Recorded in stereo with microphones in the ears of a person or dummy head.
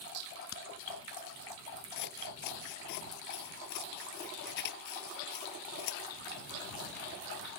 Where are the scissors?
60° left (ahead or behind).